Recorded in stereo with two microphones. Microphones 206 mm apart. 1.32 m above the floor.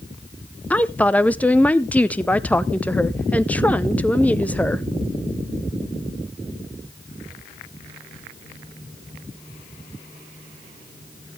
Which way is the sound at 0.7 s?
5° left (ahead or behind).